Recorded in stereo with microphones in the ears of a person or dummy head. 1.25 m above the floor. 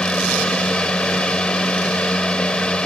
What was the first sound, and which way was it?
A fan, centre (ahead or behind).